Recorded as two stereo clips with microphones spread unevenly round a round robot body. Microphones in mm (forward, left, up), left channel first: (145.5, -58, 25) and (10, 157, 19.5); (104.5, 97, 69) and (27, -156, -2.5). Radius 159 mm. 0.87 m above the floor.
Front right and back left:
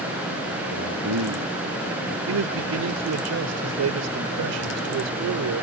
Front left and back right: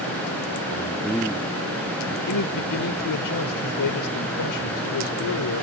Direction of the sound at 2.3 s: 105° left.